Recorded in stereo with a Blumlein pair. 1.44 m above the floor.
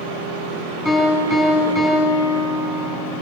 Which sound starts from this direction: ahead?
A piano, at 0.8 s.